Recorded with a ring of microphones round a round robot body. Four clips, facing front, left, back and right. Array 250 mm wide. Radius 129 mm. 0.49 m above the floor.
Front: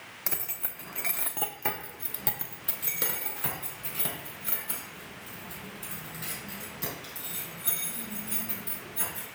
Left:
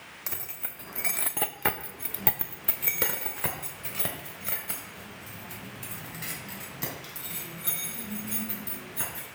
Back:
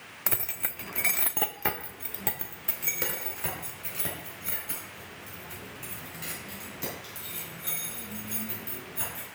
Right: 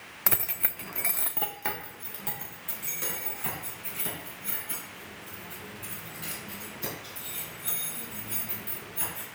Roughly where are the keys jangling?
Right.